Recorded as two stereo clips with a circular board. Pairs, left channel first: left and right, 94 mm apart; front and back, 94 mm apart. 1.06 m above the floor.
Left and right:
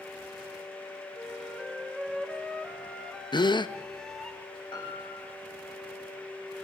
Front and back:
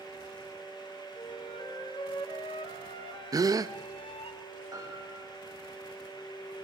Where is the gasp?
130° left, 0.7 m.